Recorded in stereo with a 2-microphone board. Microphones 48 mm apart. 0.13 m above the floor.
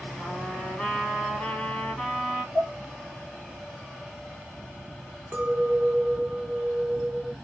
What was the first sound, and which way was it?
A trumpet, 10° left (ahead or behind).